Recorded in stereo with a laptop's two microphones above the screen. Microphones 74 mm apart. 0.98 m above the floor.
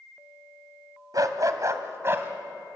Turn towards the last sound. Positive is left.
turn(degrees=-30)  # may be behind; listen again after turning